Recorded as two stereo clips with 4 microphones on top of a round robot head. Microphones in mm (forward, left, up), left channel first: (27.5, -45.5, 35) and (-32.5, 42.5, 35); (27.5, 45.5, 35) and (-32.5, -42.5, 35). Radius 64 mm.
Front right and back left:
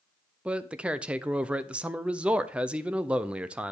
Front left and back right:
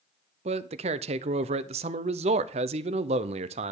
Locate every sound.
0.5 s a man speaking: 155° right, 0.7 m